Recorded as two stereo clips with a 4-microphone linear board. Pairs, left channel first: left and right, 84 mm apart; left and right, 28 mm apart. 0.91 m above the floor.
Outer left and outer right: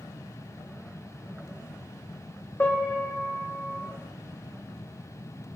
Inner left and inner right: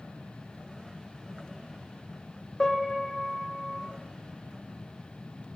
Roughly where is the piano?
Left.